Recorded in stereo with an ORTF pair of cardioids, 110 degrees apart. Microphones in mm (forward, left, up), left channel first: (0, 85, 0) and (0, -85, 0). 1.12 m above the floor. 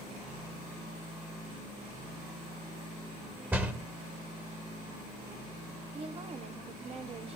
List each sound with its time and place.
3.5 s a door slam: 10° right, 1.3 m
5.9 s a woman speaking: 35° right, 1.2 m